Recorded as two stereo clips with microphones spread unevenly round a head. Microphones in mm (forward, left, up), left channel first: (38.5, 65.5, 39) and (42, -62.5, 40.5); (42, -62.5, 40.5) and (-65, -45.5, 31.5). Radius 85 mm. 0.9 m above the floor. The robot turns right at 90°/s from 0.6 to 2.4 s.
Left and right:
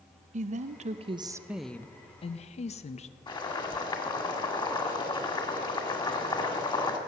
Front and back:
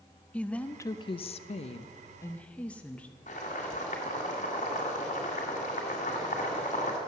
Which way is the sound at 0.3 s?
90° right.